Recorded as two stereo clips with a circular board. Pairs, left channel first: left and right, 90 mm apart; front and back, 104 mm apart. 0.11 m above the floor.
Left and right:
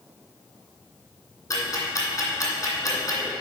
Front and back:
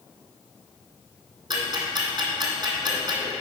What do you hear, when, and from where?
1.5 s ticking: 140° left, 1.8 m